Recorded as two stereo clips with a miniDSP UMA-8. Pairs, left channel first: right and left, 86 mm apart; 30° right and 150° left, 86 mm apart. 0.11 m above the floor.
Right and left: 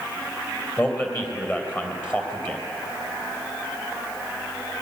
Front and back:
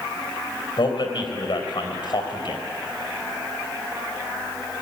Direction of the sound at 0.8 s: 25° right.